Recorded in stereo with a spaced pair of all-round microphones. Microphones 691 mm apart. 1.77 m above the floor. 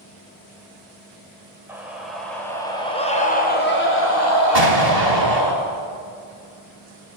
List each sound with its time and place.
1.7 s a scream: 5° right (ahead or behind), 6.5 m; by 5.5 s 35° left (ahead or behind), 5.5 m
4.5 s an explosion: 60° right (ahead or behind), 4.5 m